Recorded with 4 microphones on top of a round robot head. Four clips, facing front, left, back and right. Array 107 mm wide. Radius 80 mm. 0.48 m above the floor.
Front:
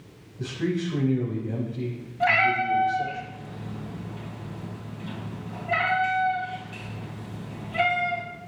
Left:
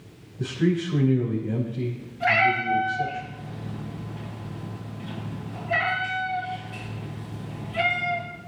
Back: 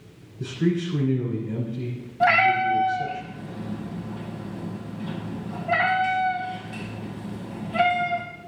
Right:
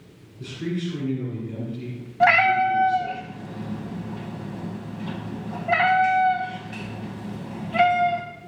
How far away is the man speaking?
About 4 m.